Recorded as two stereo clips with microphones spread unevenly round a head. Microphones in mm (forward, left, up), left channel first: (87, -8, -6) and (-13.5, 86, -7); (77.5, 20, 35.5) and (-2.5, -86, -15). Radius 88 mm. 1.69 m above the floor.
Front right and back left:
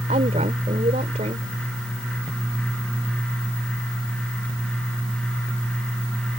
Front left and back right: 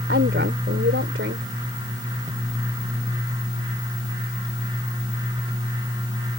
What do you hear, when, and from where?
0.1 s a woman speaking: 165° right